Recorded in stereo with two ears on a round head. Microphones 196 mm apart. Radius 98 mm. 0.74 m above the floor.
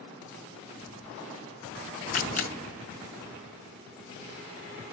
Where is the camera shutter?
35° left (ahead or behind), 2.5 m.